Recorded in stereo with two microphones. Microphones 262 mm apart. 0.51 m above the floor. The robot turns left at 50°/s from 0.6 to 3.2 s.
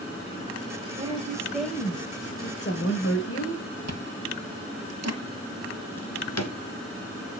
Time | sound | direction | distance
1.0 | a woman speaking | 150° right | 3 m
3.9 | chewing | 70° right (ahead or behind) | 1.6 m
6.0 | a drawer | 75° left (ahead or behind) | 1.7 m